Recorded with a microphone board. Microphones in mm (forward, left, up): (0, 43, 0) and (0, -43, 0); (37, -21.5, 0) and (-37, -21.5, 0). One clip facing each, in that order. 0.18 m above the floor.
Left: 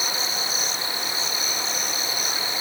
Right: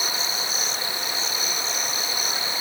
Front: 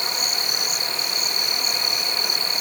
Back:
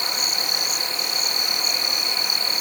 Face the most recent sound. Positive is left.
No sound to turn to.